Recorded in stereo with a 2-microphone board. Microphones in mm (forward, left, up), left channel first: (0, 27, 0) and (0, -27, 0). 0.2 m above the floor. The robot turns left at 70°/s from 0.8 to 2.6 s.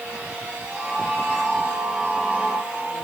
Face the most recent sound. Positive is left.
No sound to turn to.